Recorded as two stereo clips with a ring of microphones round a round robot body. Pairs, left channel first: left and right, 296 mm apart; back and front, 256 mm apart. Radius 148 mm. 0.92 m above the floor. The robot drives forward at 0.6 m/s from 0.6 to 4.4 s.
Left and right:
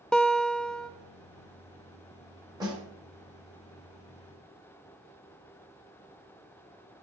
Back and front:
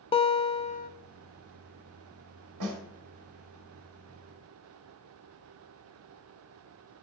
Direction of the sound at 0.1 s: 175° left.